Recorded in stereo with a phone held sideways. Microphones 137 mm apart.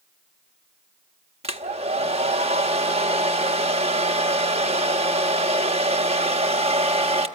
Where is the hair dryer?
45° right (ahead or behind), 0.8 m.